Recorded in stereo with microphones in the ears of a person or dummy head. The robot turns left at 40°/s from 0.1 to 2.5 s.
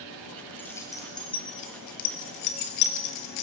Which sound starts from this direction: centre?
Keys jangling, at 0.6 s.